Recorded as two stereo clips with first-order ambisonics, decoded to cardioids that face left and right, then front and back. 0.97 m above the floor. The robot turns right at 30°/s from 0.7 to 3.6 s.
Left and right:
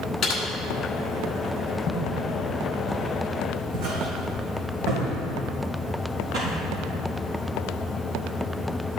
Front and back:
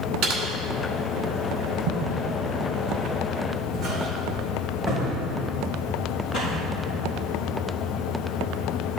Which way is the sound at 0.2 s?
150° left.